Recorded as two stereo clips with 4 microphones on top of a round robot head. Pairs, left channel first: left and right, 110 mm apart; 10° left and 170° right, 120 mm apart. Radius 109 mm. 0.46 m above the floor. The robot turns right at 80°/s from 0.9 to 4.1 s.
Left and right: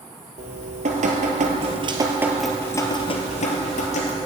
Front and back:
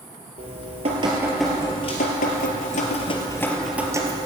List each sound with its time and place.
0.4 s dripping: 125° right, 2 m; by 4.3 s 135° left, 2 m